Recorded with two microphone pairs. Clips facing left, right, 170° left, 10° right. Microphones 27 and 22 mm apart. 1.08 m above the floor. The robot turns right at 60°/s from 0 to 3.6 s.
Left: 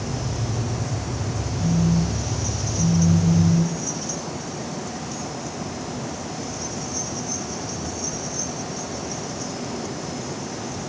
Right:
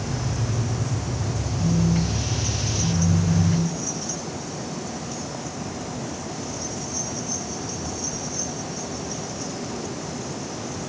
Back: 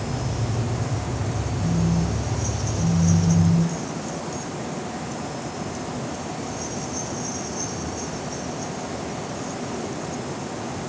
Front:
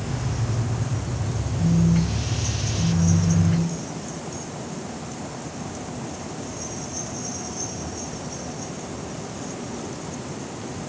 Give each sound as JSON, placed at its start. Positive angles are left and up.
{"t": 1.6, "sound": "a phone buzzing", "azimuth_deg": -35, "distance_m": 1.3}